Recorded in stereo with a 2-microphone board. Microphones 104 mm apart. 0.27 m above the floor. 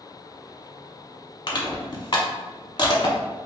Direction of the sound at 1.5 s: 50° left (ahead or behind).